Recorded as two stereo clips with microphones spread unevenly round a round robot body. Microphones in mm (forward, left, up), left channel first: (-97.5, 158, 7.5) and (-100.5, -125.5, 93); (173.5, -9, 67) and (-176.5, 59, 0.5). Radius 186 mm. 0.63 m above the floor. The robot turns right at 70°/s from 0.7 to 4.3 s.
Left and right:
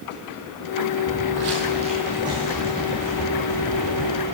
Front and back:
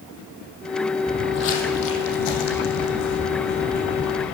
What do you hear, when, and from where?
1.1 s footsteps: 65° right, 1.0 m; by 4.2 s 95° left, 3 m